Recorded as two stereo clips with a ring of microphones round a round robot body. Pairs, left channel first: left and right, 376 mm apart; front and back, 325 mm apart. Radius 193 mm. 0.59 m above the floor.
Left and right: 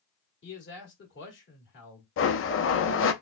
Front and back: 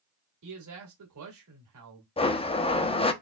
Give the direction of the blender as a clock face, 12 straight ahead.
10 o'clock.